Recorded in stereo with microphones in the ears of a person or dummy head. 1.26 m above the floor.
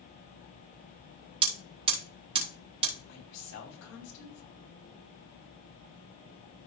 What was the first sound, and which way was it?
Hammering, 35° right (ahead or behind).